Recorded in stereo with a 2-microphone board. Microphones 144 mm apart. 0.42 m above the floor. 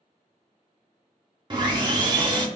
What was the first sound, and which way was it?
Sawing, 35° right (ahead or behind).